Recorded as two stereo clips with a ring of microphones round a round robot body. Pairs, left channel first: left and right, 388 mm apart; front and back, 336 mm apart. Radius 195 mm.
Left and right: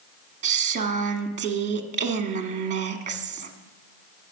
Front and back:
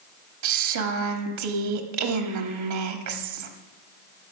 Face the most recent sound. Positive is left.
turn(degrees=-160)